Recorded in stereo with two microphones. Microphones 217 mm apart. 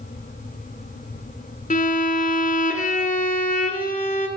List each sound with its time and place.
1.7 s a violin: 40° left (ahead or behind), 1.0 m